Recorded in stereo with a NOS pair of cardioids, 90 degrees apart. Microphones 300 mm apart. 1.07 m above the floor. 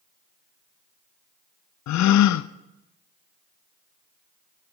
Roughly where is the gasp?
Ahead left.